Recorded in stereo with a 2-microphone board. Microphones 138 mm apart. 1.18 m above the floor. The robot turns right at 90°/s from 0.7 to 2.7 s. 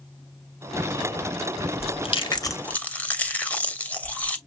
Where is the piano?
I don't hear a piano.